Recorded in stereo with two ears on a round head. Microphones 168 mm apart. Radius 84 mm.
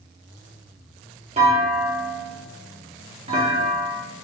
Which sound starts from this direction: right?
A clunk, at 1.4 s.